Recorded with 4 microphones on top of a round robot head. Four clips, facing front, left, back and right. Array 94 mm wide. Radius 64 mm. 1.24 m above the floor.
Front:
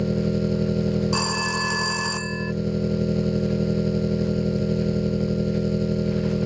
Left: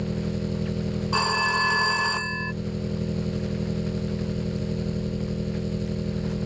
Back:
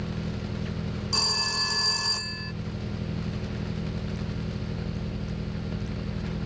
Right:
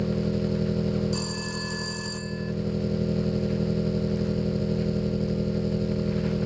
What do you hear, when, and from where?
0.0 s an engine running: 20° right
1.1 s a phone ringing: 70° left